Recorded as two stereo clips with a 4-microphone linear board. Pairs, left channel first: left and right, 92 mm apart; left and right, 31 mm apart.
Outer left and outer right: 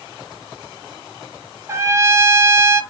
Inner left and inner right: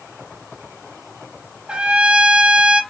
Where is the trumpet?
30° right (ahead or behind), 0.8 m.